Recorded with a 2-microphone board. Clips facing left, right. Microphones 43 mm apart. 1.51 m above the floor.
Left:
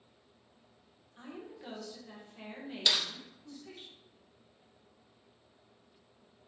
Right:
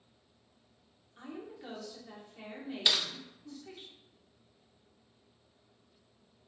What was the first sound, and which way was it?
A woman speaking, centre (ahead or behind).